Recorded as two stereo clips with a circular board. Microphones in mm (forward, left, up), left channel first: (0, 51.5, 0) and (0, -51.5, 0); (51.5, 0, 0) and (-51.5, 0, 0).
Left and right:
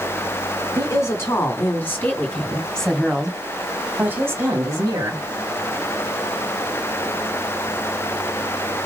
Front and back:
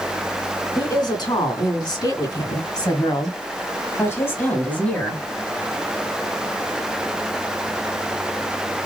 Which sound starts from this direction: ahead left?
A woman speaking, at 0.8 s.